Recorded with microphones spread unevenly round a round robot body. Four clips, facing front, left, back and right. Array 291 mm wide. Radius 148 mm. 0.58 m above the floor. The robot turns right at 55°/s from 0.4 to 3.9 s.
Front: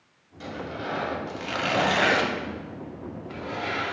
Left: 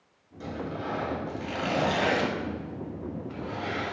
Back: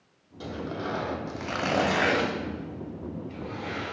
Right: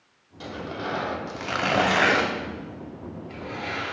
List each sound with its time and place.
0.4 s tearing paper: 175° right, 1.3 m; by 3.9 s 20° left, 1.3 m